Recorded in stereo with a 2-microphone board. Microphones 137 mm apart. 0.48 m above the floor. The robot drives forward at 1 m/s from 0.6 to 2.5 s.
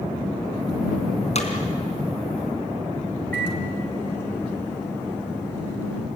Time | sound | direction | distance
1.4 | hammering | 55° left (ahead or behind) | 3.5 m
3.3 | a microwave | 15° left (ahead or behind) | 4.5 m